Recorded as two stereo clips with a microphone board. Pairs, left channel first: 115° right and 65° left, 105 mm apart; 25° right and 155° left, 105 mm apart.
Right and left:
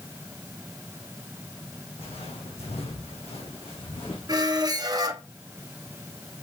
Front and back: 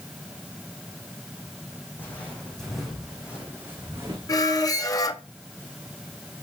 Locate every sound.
2.0 s footsteps: 95° right, 4 m; by 4.2 s 145° right, 4.5 m
4.3 s a squeak: 25° left, 0.9 m